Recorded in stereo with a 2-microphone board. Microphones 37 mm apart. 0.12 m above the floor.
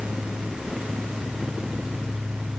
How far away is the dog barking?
No dog barking in this recording.